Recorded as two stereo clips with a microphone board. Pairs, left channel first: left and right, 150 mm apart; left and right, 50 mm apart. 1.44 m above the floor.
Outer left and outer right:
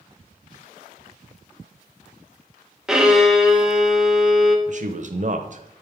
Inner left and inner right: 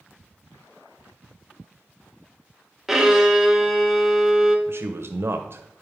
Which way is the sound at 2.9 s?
5° right (ahead or behind).